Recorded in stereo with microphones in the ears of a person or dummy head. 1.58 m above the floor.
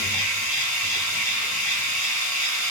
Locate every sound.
0.0 s a machine running: 55° left (ahead or behind), 5 m